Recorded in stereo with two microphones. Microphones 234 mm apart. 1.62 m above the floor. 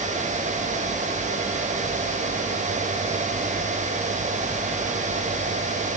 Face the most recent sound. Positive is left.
No sound to turn to.